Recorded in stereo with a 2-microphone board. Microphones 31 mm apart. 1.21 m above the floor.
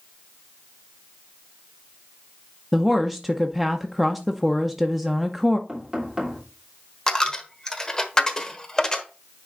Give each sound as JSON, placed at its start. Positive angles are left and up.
{"t": 2.7, "sound": "a woman speaking", "side_deg": 0, "distance_m": 0.7}
{"t": 5.7, "sound": "knocking", "side_deg": -20, "distance_m": 3.0}
{"t": 7.1, "sound": "a dropped coin", "side_deg": 20, "distance_m": 1.1}